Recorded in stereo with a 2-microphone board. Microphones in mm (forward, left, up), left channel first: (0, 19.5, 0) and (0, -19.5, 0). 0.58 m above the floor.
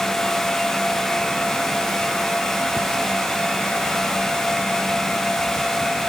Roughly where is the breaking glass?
I don't hear breaking glass.